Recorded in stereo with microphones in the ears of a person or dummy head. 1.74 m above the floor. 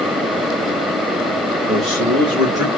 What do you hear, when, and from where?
1.7 s a man speaking: 25° right (ahead or behind), 2 m; by 2.7 s 30° right (ahead or behind), 3 m